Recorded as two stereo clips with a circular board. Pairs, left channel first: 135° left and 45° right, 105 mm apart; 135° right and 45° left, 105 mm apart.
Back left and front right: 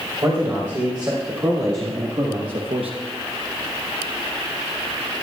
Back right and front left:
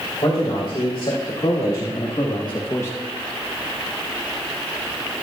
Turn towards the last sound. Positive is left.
turn(degrees=-60)